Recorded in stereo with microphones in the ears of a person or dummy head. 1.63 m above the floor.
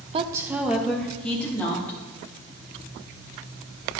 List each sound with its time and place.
0.1 s a woman speaking: 30° right (ahead or behind), 0.6 m; by 2.0 s 15° left (ahead or behind), 3 m